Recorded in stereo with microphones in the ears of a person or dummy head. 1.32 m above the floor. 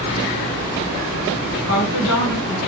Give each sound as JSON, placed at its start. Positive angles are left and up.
{"t": 1.7, "sound": "a woman speaking", "side_deg": 80, "distance_m": 1.5}